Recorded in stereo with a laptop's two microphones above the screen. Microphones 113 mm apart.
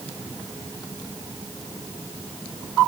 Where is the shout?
No shout in this recording.